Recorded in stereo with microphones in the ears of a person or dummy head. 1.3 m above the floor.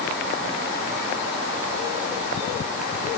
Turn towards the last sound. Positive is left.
No sound to turn to.